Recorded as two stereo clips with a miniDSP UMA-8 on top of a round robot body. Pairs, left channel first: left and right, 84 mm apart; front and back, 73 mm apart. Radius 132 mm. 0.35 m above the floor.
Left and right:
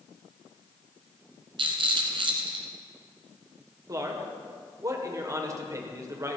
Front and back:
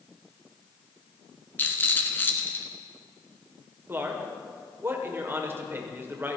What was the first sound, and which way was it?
A rattle, 65° right.